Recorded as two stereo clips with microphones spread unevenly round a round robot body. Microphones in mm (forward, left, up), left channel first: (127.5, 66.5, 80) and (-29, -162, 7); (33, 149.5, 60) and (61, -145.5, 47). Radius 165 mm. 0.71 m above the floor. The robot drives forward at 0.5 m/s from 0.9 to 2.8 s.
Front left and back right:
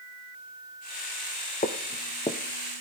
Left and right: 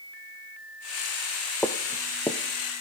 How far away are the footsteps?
About 1.0 m.